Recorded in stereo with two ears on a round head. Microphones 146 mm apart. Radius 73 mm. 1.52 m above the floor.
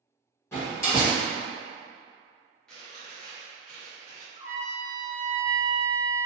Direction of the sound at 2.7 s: 5° left (ahead or behind).